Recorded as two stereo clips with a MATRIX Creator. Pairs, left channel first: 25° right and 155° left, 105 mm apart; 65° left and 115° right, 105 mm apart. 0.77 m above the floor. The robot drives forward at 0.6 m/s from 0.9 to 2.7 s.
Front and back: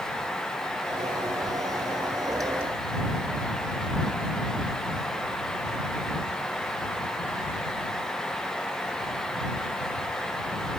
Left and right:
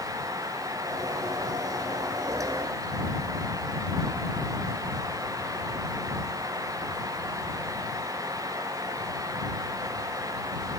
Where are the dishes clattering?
I don't hear dishes clattering.